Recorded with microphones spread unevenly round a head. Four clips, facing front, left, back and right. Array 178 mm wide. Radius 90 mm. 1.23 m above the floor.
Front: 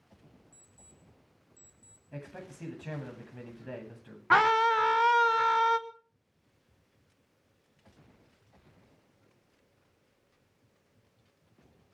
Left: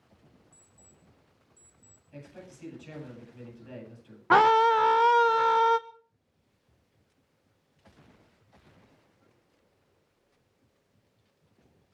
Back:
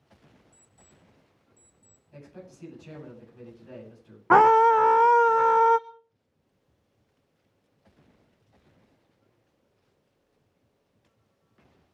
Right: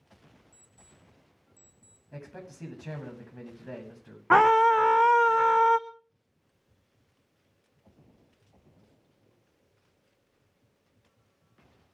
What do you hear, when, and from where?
0.5 s an alarm clock: 80° right, 6.5 m
2.1 s a man speaking: 45° right, 9.5 m
4.3 s a scream: straight behind, 0.8 m